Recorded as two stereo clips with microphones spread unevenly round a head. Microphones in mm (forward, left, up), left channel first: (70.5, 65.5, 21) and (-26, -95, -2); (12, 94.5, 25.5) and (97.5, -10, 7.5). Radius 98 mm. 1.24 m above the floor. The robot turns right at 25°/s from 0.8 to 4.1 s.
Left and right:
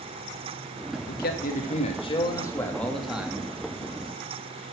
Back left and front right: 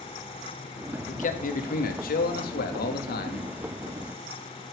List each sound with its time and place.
1.1 s a man speaking: 100° left, 2.5 m; by 3.5 s 160° left, 2.5 m